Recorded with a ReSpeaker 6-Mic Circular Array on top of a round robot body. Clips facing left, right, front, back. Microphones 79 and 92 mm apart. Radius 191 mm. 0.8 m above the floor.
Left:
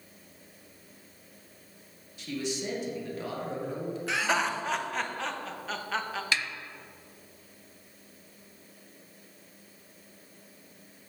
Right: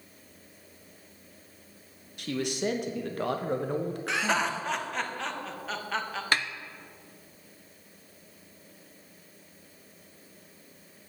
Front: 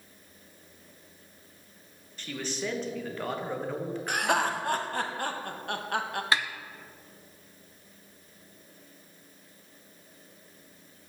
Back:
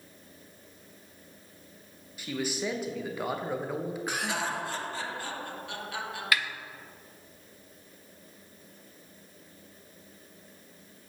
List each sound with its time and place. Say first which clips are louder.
2.2 s a man speaking: right 3 dB, back 2 dB; 100° right, 1.1 m
4.1 s laughter: even, front 8 dB; straight ahead, 1.1 m
6.3 s a snare drum: right 4 dB, front 1 dB; 55° right, 0.6 m